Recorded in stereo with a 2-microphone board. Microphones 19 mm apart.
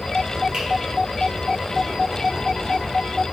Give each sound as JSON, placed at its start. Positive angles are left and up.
{"t": 0.5, "sound": "a finger snap", "side_deg": -35, "distance_m": 1.2}